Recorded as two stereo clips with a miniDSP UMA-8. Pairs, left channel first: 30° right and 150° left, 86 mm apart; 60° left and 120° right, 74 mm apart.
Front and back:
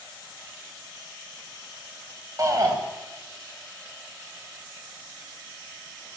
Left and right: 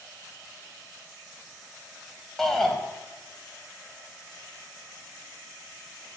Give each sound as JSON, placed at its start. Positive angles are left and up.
{"t": 2.4, "sound": "a shout", "azimuth_deg": 145, "distance_m": 1.3}